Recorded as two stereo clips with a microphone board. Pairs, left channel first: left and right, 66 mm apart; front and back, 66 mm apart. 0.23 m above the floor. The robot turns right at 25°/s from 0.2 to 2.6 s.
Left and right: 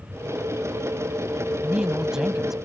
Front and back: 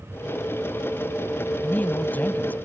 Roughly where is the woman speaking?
Ahead right.